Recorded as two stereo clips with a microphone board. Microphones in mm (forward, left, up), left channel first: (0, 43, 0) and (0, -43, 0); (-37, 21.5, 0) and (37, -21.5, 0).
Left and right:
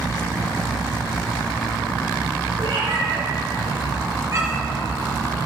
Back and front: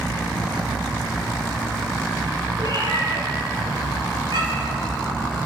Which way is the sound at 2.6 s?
70° right.